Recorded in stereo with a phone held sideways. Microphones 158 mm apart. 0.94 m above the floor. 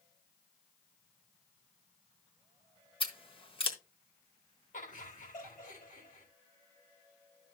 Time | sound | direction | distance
3.0 | scissors | 35° left (ahead or behind) | 1.3 m
4.7 | laughter | 60° left (ahead or behind) | 3.5 m